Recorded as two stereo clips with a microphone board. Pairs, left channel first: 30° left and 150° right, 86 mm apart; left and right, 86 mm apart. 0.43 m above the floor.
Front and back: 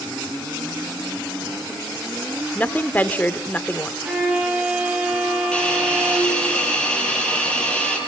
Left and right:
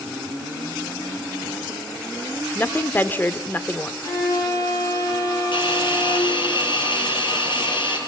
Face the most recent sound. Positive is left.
turn(degrees=110)